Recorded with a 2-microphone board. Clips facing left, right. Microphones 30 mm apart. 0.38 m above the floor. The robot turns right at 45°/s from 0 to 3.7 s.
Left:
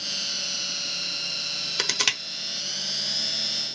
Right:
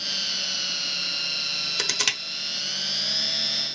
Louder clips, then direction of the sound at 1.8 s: Left 2 dB; 10° left (ahead or behind).